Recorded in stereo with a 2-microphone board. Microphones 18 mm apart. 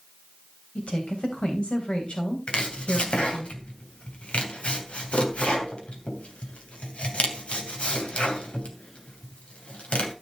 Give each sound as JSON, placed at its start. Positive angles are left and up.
{"t": 0.8, "sound": "a woman speaking", "side_deg": 75, "distance_m": 3.5}
{"t": 2.5, "sound": "chopping", "side_deg": 80, "distance_m": 2.5}